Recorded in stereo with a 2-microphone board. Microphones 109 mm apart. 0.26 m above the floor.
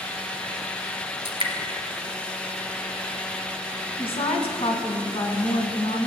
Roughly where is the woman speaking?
Left.